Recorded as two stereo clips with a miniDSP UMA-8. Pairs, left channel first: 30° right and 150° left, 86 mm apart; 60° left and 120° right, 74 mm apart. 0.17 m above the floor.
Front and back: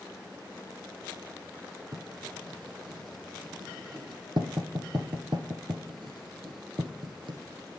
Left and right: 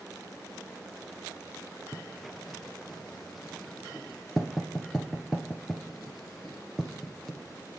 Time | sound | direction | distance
1.9 | writing | 150° left | 1.4 m